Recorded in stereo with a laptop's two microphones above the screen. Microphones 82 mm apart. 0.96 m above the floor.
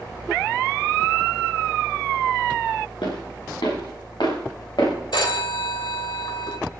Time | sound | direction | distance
3.0 | footsteps | 80° left | 7 m
5.1 | a phone ringing | 80° left | 2 m